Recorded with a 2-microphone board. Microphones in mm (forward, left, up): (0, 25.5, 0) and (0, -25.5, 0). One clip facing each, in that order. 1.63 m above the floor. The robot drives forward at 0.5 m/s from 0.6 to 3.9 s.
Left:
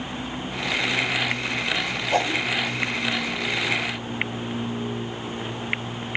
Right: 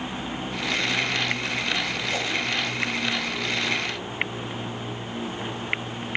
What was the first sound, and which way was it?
A whoosh, 40° left (ahead or behind).